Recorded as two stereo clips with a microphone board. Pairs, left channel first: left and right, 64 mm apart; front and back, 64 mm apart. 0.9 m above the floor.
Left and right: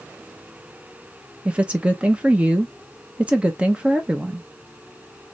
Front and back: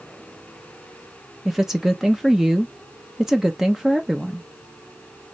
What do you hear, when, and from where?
1.4 s a woman speaking: 110° right, 0.8 m